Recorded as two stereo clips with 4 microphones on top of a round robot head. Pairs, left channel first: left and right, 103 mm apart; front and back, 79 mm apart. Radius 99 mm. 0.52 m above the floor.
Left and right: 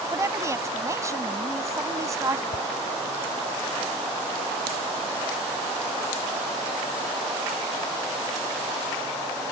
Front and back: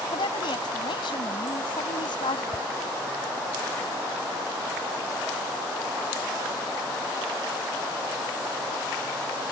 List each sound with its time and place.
0.1 s a woman speaking: 30° right
2.5 s a whoosh: 70° left